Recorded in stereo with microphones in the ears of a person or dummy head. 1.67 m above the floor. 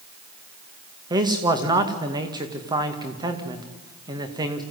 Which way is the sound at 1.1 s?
20° right (ahead or behind).